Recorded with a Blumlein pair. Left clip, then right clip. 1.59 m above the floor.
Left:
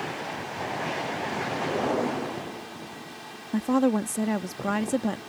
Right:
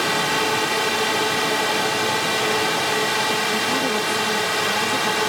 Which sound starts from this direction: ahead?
A woman speaking, at 3.5 s.